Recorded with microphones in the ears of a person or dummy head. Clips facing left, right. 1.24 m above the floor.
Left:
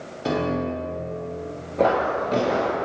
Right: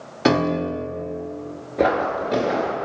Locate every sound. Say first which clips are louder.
0.2 s a piano: right 5 dB; 80° right, 0.5 m
1.8 s footsteps: even; 20° right (ahead or behind), 1.2 m; by 2.9 s 5° right (ahead or behind), 1.2 m